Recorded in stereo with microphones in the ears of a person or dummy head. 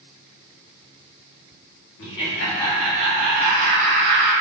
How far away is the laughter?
About 1.0 m.